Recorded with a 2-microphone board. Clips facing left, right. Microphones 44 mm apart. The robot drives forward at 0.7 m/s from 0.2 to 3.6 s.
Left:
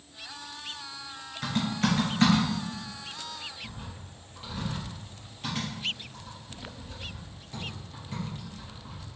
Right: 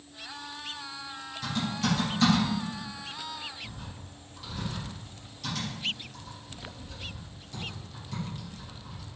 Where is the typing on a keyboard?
45° left (ahead or behind), 2.5 m; by 9.0 s 30° left (ahead or behind), 4 m.